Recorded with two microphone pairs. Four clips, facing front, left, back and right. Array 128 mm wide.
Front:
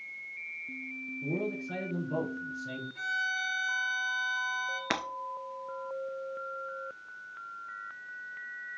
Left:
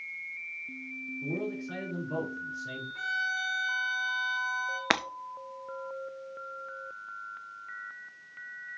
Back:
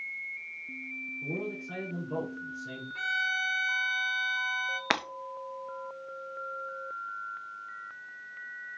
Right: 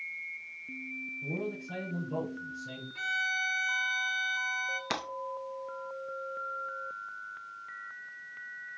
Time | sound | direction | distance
1.2 | a man speaking | 100° left | 4 m
3.0 | a violin | 160° left | 1.3 m
4.9 | breaking glass | 115° left | 0.6 m